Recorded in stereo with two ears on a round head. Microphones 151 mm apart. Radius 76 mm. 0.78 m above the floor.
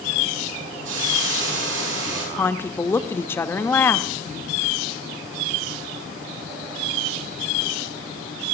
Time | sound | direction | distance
0.8 | a hiss | 85° right | 5 m
2.4 | a woman speaking | 15° left (ahead or behind) | 0.7 m